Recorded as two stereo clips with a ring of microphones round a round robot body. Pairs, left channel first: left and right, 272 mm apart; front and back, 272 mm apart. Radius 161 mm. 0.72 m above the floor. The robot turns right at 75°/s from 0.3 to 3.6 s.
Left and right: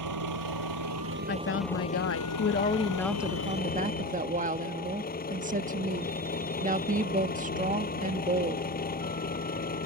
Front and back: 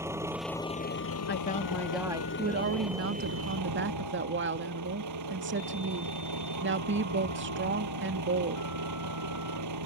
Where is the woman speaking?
40° left; by 8.6 s 145° right.